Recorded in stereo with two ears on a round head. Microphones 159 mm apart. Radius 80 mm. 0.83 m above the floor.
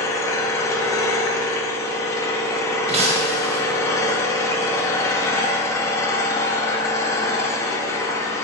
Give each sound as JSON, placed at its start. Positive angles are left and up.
{"t": 0.0, "sound": "an engine running", "side_deg": 15, "distance_m": 0.8}
{"t": 2.9, "sound": "breaking glass", "side_deg": -35, "distance_m": 1.0}